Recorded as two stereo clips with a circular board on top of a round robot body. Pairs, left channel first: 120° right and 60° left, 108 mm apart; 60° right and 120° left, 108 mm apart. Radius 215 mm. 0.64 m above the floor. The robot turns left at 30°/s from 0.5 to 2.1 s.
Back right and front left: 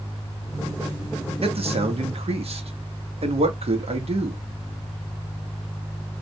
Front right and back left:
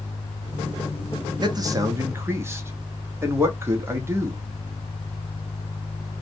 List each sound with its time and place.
1.4 s a man speaking: 75° left, 1.2 m; by 4.4 s 55° left, 1.2 m